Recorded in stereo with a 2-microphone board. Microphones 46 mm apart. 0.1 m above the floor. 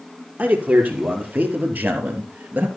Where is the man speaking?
35° right (ahead or behind), 3 m; by 2.7 s 40° right (ahead or behind), 2.5 m.